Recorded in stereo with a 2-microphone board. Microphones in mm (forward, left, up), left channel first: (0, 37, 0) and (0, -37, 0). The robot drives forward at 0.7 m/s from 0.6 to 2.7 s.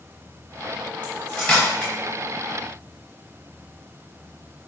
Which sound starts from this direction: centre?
Cutlery clinking, at 1.0 s.